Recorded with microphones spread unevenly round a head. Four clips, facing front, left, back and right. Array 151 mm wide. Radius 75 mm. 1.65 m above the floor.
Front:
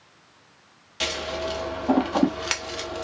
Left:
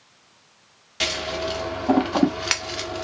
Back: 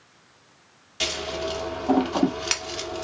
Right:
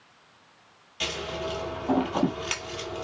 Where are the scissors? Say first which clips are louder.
Left 5 dB, even; 95° left, 1.3 m.